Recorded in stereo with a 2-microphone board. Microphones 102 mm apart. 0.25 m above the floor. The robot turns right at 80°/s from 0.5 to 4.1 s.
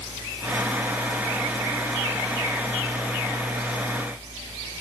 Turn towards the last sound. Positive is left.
No sound to turn to.